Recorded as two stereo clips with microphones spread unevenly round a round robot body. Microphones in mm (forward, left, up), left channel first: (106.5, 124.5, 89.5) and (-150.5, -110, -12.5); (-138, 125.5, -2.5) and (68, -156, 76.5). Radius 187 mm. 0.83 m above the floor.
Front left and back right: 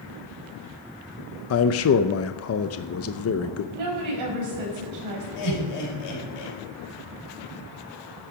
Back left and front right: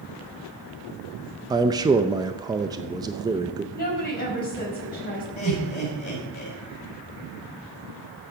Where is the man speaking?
40° left, 0.7 m.